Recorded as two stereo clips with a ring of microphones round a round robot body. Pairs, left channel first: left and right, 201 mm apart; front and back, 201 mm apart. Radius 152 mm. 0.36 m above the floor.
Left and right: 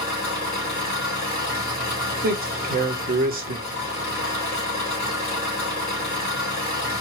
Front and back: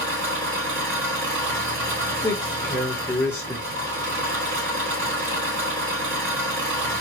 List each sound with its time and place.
0.0 s an engine running: 175° left, 2 m
2.2 s a man speaking: 75° right, 1.1 m